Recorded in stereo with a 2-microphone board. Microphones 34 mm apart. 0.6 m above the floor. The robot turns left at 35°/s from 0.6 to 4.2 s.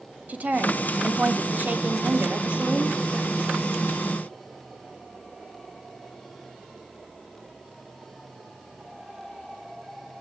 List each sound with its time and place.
0.3 s a woman speaking: 60° right, 1.1 m; by 3.3 s 155° right, 1.1 m